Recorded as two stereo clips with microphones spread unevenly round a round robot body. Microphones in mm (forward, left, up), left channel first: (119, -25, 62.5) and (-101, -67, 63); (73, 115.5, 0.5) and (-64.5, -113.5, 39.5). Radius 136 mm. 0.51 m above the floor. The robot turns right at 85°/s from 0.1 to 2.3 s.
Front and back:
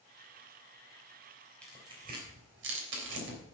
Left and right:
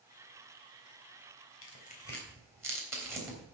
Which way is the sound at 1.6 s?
95° left.